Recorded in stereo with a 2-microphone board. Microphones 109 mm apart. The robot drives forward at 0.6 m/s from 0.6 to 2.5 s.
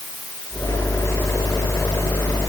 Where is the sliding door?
I don't hear a sliding door.